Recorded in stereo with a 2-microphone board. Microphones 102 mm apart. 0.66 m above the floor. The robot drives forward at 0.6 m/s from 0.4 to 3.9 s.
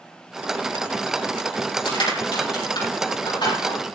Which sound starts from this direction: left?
Crushing, at 1.9 s.